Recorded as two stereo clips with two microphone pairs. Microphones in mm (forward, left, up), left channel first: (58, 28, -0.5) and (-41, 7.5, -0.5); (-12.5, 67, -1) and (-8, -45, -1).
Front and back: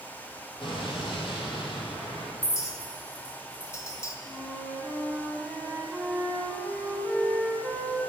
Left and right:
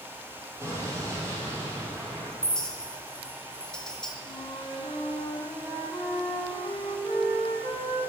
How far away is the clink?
About 0.8 m.